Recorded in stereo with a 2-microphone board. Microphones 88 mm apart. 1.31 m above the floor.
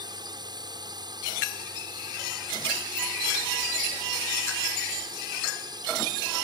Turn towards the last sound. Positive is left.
turn(degrees=-50)  # may be behind; listen again after turning